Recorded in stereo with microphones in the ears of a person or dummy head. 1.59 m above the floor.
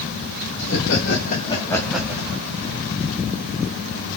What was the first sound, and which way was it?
Laughter, 65° left (ahead or behind).